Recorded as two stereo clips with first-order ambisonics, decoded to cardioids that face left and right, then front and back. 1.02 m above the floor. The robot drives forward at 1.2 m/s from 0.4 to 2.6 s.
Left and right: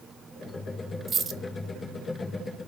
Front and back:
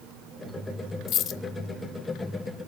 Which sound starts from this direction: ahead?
A dropped coin, at 1.1 s.